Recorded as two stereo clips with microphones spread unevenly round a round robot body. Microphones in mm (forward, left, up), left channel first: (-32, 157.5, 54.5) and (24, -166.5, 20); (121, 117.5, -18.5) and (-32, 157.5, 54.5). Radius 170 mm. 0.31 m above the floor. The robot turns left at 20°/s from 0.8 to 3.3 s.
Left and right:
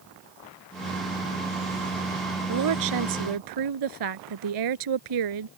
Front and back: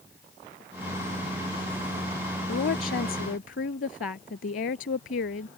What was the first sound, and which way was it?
A woman speaking, 40° right.